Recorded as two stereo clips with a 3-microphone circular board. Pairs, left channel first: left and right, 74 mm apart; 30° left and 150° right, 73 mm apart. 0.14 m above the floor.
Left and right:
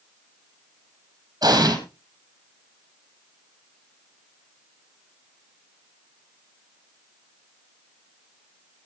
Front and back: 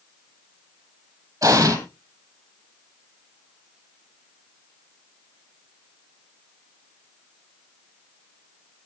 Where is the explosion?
115° right, 3 m.